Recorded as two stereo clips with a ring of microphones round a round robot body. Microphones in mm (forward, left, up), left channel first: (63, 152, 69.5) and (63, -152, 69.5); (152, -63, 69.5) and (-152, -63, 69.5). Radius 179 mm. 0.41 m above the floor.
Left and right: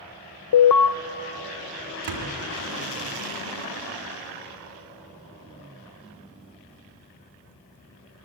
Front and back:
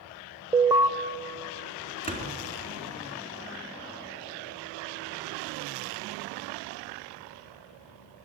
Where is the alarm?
100° left, 0.9 m.